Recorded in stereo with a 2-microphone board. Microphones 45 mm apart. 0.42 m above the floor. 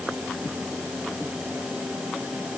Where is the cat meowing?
I don't hear a cat meowing.